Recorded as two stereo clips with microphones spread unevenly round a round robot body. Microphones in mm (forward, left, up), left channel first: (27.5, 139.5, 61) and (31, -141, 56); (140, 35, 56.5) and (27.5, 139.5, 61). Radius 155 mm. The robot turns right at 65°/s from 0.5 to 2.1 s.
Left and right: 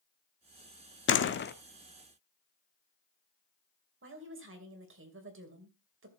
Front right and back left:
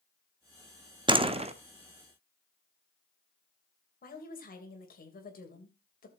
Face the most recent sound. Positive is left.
turn(degrees=-50)